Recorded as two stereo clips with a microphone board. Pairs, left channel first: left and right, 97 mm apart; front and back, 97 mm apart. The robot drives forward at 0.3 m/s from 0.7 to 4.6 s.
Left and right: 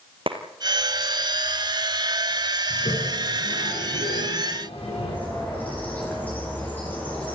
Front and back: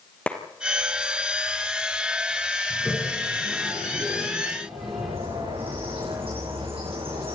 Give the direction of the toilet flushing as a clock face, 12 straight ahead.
9 o'clock.